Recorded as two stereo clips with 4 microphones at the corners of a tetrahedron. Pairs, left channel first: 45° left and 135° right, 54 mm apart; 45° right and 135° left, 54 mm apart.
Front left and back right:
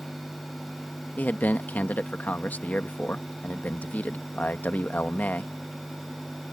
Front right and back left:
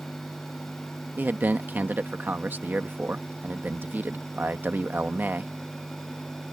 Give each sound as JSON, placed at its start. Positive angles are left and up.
{"t": 1.2, "sound": "a man speaking", "azimuth_deg": 95}